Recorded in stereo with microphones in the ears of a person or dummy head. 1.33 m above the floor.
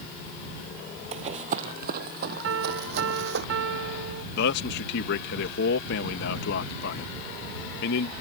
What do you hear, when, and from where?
1.1 s running footsteps: 40° right (ahead or behind); by 3.4 s 65° right (ahead or behind)
2.4 s a piano: 75° right (ahead or behind)
4.3 s a man speaking: 60° left (ahead or behind)